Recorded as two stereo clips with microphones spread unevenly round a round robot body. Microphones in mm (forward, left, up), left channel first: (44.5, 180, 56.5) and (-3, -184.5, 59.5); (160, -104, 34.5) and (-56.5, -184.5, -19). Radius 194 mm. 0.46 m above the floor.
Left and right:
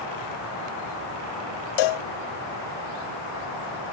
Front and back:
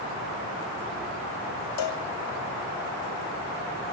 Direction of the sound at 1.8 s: 55° left.